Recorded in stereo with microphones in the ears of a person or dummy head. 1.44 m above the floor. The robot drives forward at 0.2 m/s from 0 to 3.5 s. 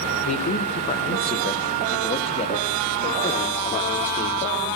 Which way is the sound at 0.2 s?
40° left (ahead or behind).